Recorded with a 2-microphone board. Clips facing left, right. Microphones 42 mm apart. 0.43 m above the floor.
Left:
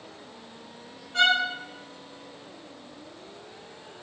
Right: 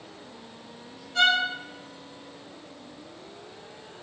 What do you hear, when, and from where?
1.1 s a violin: 45° left (ahead or behind), 1.8 m